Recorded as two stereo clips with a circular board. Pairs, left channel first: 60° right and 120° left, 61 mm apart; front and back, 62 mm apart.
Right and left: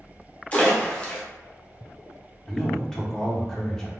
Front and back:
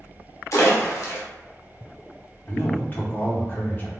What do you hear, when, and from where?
0.5 s a splash: straight ahead, 0.8 m
2.5 s a man speaking: 10° left, 0.8 m